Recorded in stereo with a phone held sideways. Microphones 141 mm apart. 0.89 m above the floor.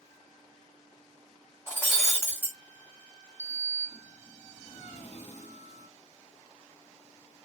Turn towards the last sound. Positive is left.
turn(degrees=60)  # may be behind; listen again after turning